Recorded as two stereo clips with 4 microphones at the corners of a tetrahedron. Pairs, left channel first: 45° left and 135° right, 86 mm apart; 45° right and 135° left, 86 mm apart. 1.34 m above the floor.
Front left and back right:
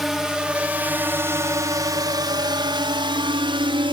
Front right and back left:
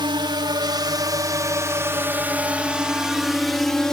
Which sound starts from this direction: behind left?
A drone, at 0.0 s.